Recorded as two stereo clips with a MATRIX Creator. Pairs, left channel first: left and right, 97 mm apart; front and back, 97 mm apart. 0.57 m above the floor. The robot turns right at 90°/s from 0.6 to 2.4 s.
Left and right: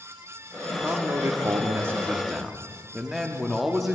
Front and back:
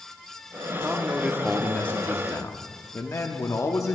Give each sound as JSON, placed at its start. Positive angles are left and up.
{"t": 0.8, "sound": "a man speaking", "azimuth_deg": -150, "distance_m": 0.7}